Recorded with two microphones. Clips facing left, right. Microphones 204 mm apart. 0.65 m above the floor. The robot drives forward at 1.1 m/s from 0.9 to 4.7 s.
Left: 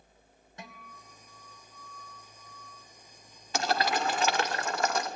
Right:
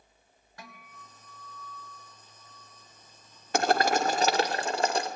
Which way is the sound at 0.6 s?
25° left (ahead or behind).